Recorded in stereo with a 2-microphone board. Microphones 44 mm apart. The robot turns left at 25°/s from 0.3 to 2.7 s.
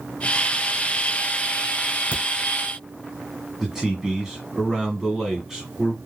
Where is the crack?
35° right (ahead or behind), 1.0 m.